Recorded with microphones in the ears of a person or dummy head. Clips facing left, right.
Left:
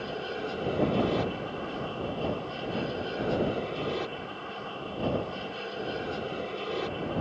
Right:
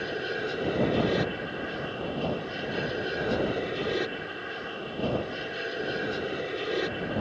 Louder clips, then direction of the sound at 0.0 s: Right 2 dB; 20° right (ahead or behind).